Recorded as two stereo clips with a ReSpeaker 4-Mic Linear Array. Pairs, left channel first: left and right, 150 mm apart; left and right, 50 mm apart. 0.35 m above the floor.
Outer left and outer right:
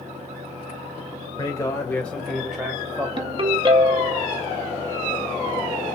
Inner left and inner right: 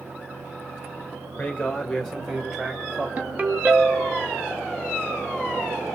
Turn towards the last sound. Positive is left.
turn(degrees=-35)  # may be behind; listen again after turning